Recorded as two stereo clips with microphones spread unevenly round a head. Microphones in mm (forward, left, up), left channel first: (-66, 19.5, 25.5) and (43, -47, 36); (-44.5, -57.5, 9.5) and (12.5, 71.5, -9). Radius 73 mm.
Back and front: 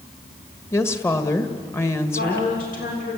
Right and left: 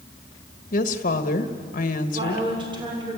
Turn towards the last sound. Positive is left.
turn(degrees=125)